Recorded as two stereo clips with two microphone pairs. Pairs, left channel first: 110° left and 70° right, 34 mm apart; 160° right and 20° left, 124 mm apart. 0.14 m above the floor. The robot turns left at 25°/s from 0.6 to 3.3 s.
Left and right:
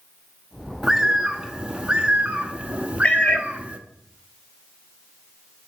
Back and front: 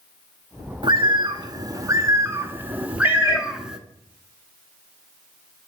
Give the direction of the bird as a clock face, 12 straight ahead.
12 o'clock.